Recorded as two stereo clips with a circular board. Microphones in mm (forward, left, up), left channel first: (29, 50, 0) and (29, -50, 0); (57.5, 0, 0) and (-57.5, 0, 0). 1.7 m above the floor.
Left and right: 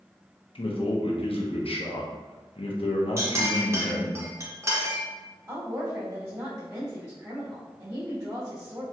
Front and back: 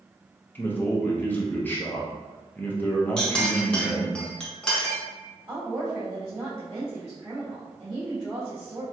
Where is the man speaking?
75° left, 0.7 m.